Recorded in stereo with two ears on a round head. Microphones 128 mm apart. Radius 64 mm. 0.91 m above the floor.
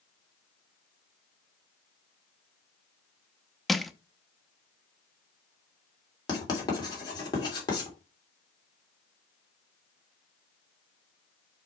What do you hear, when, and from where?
3.7 s crushing: centre (ahead or behind), 0.5 m
6.3 s writing: 30° left (ahead or behind), 3 m